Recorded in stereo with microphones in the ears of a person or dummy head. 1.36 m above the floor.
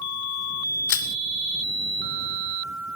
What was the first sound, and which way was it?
Crushing, 70° left (ahead or behind).